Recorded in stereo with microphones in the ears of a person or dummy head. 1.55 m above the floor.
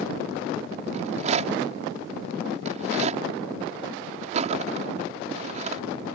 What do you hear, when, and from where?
0.9 s a rattle: 40° right (ahead or behind)